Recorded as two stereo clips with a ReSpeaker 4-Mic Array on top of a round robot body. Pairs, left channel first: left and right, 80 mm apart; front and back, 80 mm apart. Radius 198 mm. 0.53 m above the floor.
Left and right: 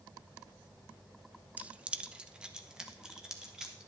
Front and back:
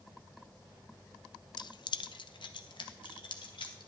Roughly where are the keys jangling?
Ahead.